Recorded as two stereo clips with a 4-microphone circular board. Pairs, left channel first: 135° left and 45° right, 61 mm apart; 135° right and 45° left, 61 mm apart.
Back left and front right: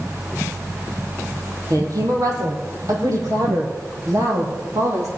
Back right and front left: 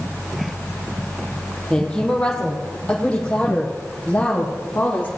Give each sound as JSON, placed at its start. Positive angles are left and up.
{"t": 1.7, "sound": "a woman speaking", "azimuth_deg": -60, "distance_m": 3.5}